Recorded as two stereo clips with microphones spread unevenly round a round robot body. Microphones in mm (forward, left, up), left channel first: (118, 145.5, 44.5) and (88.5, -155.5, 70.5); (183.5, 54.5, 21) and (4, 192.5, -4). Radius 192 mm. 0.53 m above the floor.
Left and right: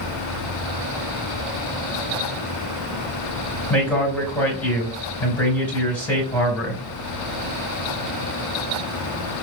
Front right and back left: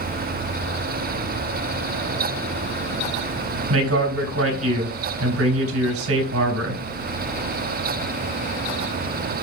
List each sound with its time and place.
3.7 s a man speaking: 170° left, 3 m